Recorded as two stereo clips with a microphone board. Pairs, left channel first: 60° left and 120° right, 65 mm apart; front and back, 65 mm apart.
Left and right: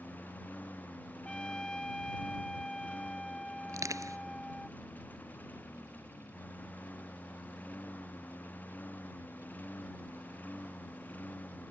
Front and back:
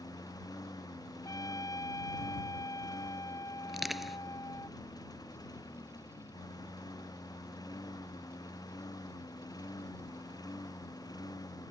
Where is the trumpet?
15° right.